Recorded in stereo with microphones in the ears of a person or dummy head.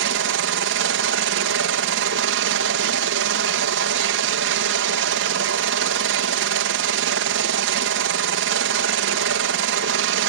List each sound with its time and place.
0.0 s a helicopter: 60° right (ahead or behind)